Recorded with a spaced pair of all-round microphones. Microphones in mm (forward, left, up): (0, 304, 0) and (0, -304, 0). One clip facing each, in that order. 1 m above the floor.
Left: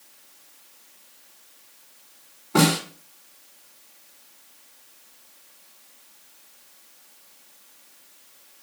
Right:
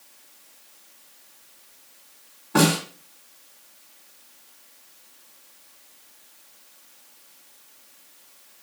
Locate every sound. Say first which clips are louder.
2.5 s a snare drum: even; centre (ahead or behind), 1.7 m